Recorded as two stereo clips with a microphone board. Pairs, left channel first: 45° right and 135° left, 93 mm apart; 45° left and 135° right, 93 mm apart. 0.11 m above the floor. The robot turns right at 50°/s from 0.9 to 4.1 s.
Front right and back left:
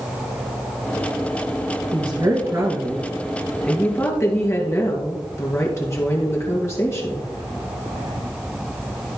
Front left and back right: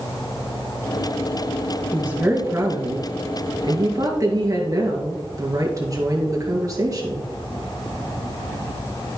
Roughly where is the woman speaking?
Behind left.